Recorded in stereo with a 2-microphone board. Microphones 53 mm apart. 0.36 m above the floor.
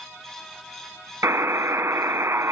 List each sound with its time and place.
1.2 s a buzzer: 60° right (ahead or behind), 0.6 m